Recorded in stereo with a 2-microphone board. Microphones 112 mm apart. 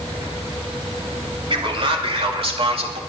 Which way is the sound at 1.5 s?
55° right (ahead or behind).